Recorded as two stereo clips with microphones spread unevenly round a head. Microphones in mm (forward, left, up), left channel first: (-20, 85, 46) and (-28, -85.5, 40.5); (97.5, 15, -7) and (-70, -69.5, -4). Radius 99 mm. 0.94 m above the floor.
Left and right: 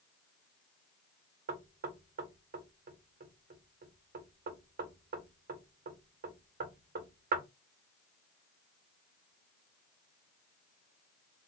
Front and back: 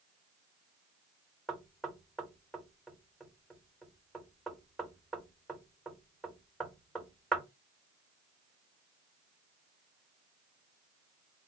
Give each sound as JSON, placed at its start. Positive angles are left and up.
{"t": 1.5, "sound": "knocking", "azimuth_deg": -60, "distance_m": 1.0}